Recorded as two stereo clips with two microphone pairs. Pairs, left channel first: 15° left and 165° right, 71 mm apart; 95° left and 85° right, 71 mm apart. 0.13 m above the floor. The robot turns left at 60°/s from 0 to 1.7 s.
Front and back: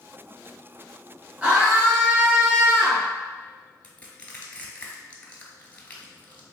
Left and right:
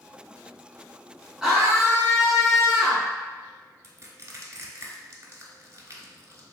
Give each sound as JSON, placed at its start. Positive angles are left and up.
{"t": 1.4, "sound": "a scream", "azimuth_deg": -150, "distance_m": 1.1}
{"t": 3.8, "sound": "crushing", "azimuth_deg": -50, "distance_m": 0.8}